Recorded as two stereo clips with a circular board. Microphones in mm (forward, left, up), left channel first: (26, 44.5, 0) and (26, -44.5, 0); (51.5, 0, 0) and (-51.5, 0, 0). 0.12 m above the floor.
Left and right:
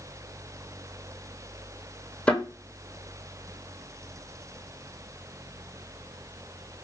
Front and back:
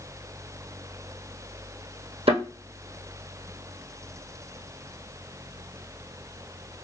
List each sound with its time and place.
2.3 s a thud: 165° left, 1.5 m